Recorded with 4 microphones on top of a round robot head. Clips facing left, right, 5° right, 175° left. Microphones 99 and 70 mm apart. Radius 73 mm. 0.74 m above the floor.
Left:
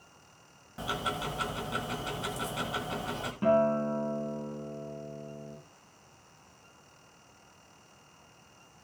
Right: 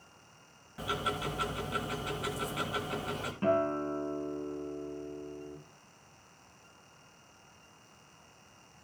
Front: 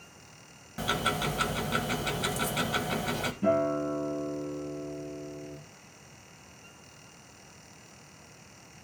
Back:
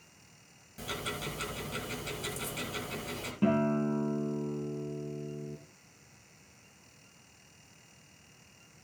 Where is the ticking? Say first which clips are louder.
Even, front 9 dB; 20° left, 1.8 m.